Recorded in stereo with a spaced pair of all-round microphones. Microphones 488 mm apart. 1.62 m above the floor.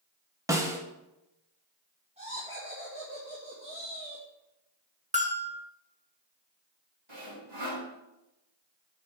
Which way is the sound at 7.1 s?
65° right (ahead or behind).